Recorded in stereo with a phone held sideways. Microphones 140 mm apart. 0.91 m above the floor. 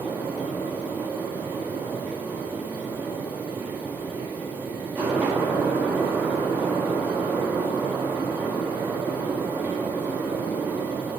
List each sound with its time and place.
0.0 s a fan: 15° right (ahead or behind), 0.8 m